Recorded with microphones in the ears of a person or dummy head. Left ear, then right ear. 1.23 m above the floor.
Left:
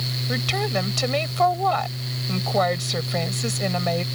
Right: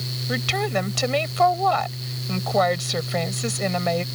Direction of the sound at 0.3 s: 5° right (ahead or behind).